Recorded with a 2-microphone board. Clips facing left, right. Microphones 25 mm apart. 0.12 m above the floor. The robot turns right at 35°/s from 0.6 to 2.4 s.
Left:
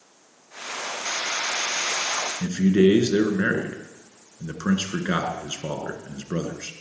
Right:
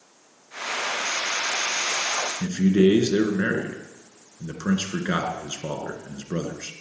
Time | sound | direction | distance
2.4 | a man speaking | 20° left (ahead or behind) | 1.8 m